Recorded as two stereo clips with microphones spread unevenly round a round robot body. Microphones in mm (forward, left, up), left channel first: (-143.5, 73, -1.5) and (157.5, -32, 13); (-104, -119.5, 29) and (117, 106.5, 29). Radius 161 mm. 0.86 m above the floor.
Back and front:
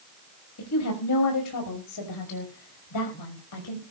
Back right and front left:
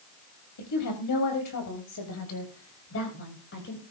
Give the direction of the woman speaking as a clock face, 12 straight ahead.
5 o'clock.